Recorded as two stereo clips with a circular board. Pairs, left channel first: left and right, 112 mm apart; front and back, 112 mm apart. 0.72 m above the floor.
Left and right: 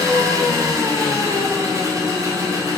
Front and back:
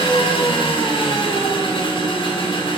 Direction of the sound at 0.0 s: 35° right.